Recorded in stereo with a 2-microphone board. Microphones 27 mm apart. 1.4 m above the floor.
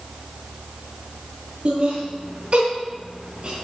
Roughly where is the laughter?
Right.